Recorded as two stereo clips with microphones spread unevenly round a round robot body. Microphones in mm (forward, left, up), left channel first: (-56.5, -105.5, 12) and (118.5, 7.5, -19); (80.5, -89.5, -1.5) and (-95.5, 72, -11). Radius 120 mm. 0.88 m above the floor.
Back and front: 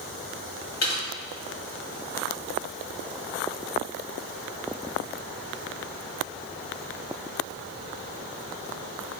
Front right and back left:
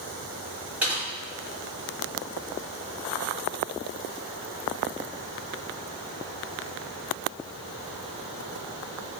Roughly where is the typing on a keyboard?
Behind right.